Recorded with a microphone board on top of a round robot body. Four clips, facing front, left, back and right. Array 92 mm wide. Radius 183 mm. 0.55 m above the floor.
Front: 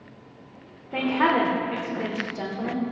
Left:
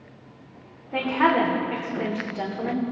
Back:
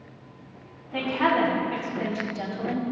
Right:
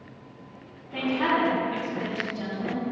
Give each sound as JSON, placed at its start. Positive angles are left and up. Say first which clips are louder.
{"t": 0.9, "sound": "a woman speaking", "louder": "left 4 dB, front 2 dB", "azimuth_deg": 40, "distance_m": 3.0}